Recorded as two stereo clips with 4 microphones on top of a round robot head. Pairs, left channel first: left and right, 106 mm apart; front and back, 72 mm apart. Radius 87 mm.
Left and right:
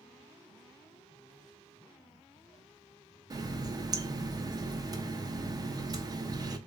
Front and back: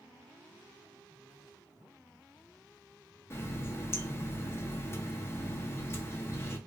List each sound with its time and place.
3.3 s a running tap: 45° right, 0.5 m